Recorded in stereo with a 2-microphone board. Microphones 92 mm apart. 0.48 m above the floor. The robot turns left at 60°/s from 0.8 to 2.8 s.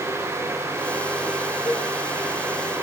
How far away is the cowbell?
About 4 m.